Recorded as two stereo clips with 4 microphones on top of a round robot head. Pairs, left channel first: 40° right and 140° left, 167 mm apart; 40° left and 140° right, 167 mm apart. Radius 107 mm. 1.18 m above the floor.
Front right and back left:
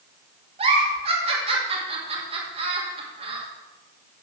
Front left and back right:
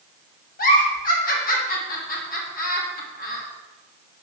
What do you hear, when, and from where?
0.6 s a giggle: 80° left, 2.5 m